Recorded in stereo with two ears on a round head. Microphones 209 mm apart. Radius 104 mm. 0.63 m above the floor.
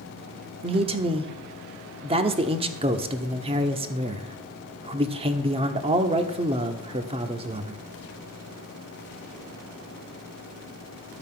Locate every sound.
0.6 s a man speaking: 25° right (ahead or behind), 1.1 m